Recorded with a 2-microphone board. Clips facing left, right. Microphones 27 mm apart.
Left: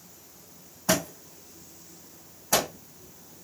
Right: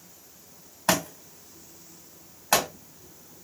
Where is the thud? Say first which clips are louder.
Right 1 dB; 80° right, 1.6 m.